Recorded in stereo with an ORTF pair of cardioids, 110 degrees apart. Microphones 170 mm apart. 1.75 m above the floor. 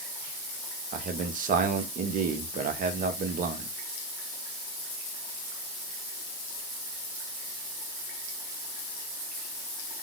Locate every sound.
0.9 s a man speaking: 50° right, 0.8 m